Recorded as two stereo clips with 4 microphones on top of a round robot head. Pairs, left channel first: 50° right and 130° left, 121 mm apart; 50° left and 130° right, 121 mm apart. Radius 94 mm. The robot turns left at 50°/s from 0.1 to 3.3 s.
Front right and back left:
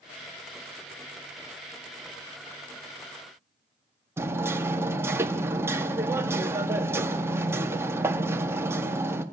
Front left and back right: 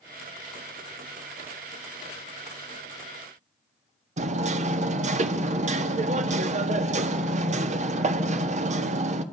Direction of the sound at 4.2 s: 160° right.